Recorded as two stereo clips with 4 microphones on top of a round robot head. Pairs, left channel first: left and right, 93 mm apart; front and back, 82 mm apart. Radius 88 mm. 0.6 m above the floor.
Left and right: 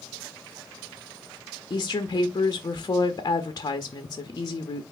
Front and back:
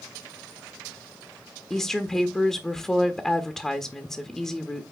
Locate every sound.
1.7 s a woman speaking: 85° left, 0.7 m